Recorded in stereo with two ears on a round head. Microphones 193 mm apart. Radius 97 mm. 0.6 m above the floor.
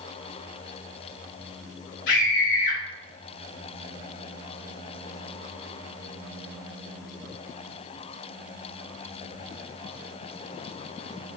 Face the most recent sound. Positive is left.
turn(degrees=55)  # may be behind; listen again after turning